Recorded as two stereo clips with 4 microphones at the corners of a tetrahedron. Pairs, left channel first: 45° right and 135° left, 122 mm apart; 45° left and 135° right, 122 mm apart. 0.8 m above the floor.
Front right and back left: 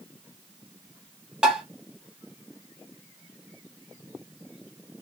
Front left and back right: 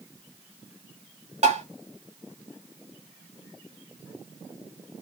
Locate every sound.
1.4 s tapping: 140° right, 1.2 m